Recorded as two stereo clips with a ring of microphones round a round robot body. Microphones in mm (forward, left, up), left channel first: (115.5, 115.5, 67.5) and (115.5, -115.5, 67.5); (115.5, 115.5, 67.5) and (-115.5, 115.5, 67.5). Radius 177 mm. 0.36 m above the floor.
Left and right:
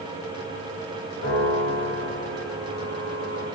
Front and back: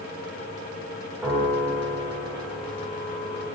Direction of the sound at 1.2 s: 100° left.